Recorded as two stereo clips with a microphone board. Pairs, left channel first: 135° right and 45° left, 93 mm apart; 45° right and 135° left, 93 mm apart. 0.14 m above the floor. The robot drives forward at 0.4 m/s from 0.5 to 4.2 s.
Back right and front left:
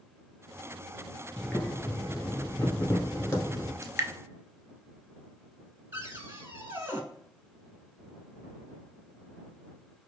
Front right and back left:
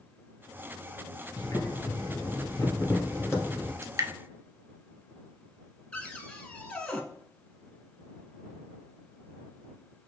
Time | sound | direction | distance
1.4 | boiling | 55° right | 1.7 m
3.8 | dripping | 90° left | 0.6 m
5.9 | a cupboard door | 15° left | 0.8 m